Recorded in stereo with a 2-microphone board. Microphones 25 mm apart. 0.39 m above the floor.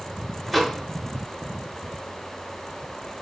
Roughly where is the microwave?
Centre.